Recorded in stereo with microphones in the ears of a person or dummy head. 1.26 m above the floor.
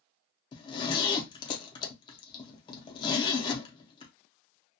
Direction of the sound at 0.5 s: 20° left (ahead or behind).